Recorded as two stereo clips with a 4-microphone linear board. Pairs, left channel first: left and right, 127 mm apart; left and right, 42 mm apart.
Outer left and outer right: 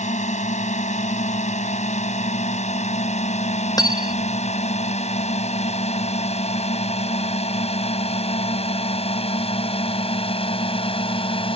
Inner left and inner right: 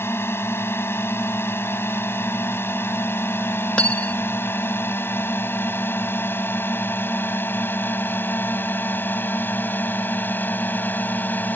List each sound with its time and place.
0.0 s a drone: 70° left (ahead or behind); by 11.6 s 45° left (ahead or behind)
3.8 s cutlery clinking: 30° left (ahead or behind)